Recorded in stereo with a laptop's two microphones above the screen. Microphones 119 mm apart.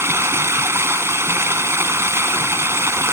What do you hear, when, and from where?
0.0 s running water: 20° right (ahead or behind)